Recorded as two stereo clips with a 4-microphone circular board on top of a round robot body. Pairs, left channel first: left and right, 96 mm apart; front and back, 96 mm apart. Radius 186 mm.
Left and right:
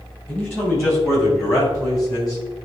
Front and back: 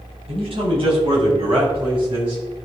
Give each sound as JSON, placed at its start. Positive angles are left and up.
{"t": 0.3, "sound": "a man speaking", "azimuth_deg": 160, "distance_m": 3.5}